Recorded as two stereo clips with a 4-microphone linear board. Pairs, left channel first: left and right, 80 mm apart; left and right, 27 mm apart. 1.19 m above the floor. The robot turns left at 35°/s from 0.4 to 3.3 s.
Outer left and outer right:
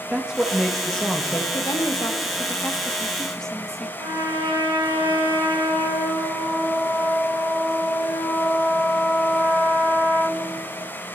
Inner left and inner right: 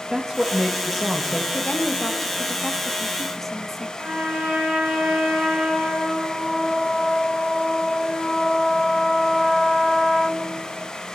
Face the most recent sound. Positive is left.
turn(degrees=-80)